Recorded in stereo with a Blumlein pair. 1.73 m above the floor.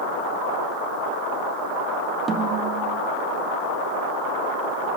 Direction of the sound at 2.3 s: 15° right.